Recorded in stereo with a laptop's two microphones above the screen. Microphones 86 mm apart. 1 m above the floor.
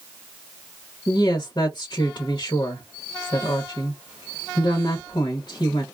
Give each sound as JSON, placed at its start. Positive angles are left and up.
{"t": 1.1, "sound": "a woman speaking", "side_deg": 50, "distance_m": 0.9}